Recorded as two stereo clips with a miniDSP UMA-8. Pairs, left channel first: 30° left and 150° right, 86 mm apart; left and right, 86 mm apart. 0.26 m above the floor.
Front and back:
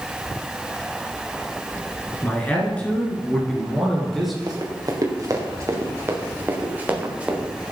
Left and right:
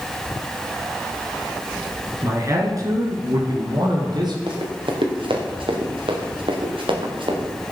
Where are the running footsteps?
110° right, 3.5 m; by 7.5 s 70° right, 4 m.